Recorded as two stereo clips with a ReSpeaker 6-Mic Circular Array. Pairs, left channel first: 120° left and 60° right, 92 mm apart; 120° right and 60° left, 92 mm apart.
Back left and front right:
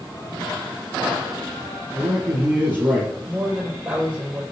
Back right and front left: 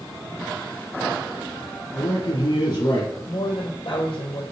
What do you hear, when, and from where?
1.9 s a man speaking: 125° right, 2.5 m
3.2 s a woman speaking: 130° right, 4 m